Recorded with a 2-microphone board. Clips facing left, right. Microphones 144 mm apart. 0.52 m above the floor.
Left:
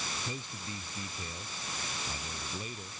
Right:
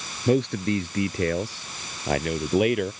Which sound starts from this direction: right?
A man speaking, at 0.3 s.